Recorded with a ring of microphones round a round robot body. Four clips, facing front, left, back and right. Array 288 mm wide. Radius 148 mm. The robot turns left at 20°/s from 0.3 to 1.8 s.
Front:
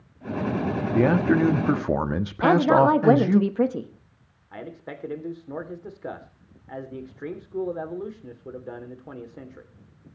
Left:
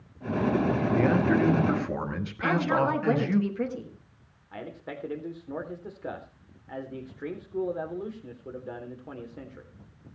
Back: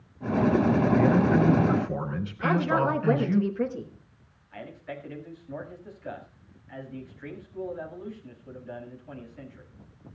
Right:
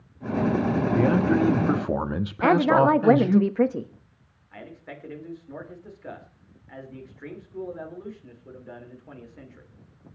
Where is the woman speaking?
45° right, 1.4 m.